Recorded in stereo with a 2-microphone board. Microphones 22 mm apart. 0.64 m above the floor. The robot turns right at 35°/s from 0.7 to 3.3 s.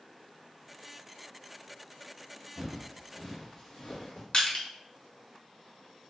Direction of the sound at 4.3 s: 50° left (ahead or behind).